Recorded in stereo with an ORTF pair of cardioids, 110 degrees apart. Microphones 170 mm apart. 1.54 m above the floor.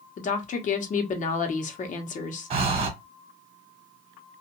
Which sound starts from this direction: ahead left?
A woman speaking, at 0.2 s.